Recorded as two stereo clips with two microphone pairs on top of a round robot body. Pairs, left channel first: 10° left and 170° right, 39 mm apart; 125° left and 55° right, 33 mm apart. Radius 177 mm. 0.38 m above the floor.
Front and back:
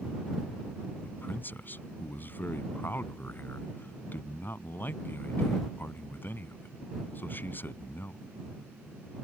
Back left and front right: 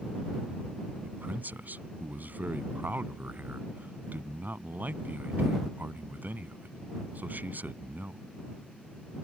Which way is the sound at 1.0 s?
25° right.